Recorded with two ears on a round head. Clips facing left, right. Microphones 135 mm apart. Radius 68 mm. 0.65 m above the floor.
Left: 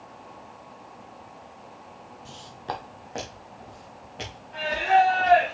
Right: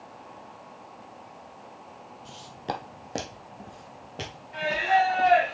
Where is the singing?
10° right (ahead or behind), 3.5 m.